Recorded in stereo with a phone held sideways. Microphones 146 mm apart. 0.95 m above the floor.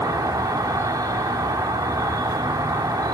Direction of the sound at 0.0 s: 25° right (ahead or behind).